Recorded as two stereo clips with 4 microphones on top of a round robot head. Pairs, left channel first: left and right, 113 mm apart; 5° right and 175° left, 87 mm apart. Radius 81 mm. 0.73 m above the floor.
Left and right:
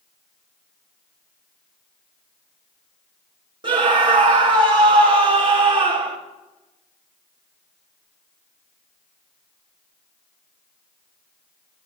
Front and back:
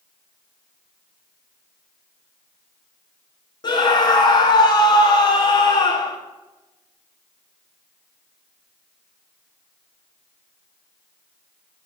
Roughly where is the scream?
Ahead right.